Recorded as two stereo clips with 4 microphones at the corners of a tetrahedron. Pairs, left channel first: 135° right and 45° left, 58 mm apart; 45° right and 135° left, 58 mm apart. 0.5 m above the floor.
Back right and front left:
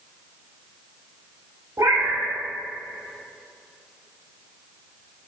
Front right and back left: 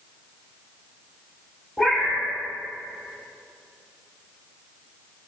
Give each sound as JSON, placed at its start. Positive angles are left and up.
{"t": 1.8, "sound": "a cat meowing", "azimuth_deg": 35, "distance_m": 0.7}